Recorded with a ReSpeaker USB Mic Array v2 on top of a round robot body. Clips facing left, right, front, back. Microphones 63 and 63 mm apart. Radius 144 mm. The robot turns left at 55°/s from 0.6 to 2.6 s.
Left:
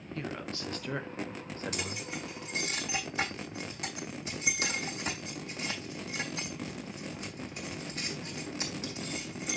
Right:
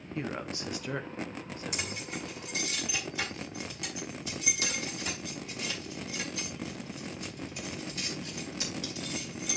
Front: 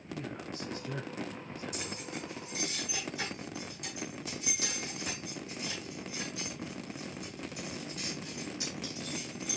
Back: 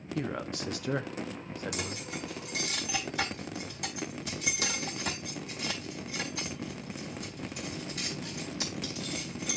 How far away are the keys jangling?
About 3.5 m.